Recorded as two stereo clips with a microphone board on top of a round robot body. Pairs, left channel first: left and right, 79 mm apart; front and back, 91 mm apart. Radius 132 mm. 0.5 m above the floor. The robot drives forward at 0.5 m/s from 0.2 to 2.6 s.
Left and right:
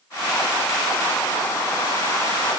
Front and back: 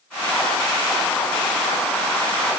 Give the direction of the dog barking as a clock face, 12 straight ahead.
I don't hear a dog barking.